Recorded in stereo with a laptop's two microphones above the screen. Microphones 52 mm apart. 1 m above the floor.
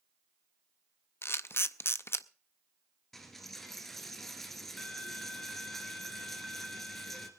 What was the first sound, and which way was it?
A camera shutter, 55° left (ahead or behind).